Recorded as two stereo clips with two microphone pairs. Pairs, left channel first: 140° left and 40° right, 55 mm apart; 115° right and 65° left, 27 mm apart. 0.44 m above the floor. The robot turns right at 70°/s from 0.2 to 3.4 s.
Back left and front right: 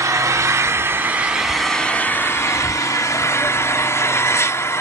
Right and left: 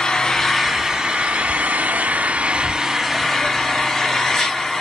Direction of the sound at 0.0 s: 45° right.